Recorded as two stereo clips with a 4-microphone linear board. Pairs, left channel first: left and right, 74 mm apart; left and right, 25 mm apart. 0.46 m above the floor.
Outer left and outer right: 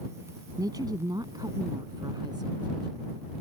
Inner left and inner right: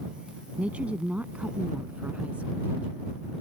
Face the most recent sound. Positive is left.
turn(degrees=-75)  # may be behind; listen again after turning